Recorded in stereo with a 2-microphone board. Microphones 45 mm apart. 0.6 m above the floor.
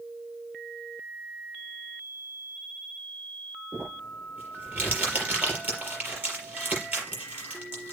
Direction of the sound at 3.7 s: 40° right (ahead or behind).